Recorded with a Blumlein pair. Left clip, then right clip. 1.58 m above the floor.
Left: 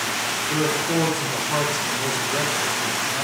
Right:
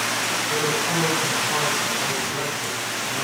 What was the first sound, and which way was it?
A man speaking, 55° left.